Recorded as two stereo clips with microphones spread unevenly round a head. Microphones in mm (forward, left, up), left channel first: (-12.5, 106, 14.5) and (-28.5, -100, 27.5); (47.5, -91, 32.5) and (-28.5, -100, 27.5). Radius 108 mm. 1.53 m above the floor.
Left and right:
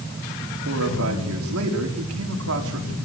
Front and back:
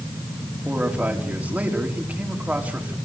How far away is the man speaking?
About 5 m.